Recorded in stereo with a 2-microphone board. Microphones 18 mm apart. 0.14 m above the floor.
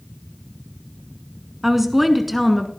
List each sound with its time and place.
1.6 s a woman speaking: 15° right (ahead or behind), 1.1 m; by 2.7 s centre (ahead or behind), 1.3 m